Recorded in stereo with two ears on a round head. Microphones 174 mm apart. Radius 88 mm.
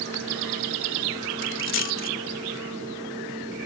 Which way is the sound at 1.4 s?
75° left (ahead or behind).